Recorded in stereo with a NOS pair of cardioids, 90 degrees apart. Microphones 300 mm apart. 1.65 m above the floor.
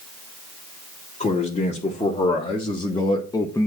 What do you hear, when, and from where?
1.2 s a man speaking: 20° left, 2 m; by 3.7 s 10° left, 0.8 m